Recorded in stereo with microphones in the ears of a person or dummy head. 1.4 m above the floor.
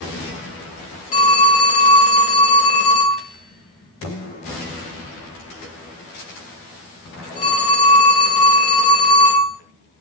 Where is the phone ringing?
25° left (ahead or behind), 0.6 m.